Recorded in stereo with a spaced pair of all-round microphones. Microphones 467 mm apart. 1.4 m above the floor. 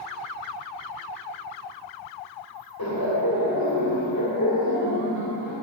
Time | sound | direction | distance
2.8 | laughter | 45° left (ahead or behind) | 2 m